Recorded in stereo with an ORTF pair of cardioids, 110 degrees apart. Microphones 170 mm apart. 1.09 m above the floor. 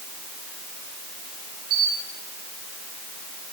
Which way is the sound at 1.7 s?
65° right.